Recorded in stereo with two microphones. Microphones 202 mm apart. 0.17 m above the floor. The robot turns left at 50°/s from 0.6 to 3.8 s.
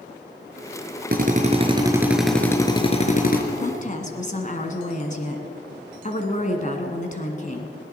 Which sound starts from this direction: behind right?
A drill, at 1.1 s.